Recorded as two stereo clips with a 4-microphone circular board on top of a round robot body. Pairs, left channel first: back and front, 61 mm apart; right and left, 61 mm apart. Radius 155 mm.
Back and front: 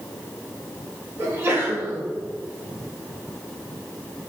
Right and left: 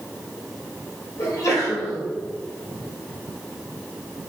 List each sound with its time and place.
1.2 s a sneeze: 55° right, 4.5 m